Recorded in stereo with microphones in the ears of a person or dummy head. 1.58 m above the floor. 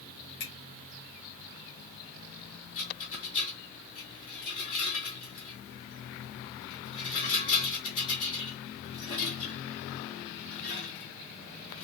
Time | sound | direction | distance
0.4 | a finger snap | 65° left (ahead or behind) | 1.0 m
2.8 | a rattle | 55° left (ahead or behind) | 1.9 m